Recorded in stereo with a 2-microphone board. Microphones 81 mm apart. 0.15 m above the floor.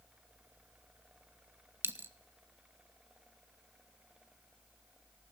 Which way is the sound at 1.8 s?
25° right (ahead or behind).